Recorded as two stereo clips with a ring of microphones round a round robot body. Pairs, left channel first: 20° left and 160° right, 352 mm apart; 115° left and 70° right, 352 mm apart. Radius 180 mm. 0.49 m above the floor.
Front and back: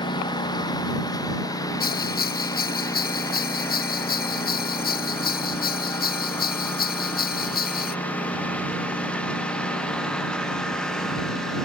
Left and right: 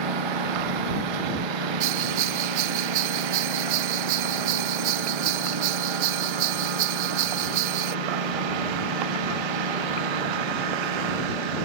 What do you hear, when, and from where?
0.0 s a lawn mower: 55° right; by 11.7 s 65° right
1.8 s a bell: 45° right